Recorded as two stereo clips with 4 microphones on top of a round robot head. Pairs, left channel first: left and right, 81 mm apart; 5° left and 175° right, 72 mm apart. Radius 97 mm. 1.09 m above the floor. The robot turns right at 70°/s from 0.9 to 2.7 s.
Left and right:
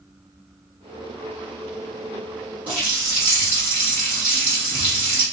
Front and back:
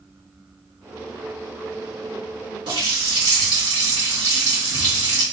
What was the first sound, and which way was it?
A running tap, 165° right.